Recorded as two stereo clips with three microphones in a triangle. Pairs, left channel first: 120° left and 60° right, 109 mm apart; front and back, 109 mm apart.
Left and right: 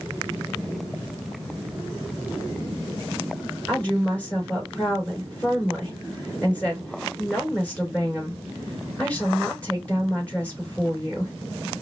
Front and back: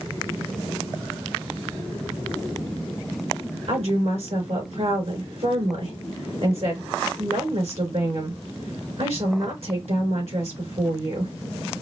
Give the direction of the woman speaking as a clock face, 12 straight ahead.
5 o'clock.